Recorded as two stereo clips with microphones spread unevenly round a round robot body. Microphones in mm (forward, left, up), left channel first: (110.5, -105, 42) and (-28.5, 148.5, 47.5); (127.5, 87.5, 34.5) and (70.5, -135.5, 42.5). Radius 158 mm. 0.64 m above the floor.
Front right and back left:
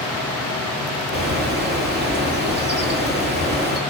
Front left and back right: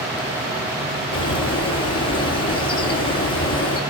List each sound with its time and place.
1.1 s a bird: 65° left, 6.5 m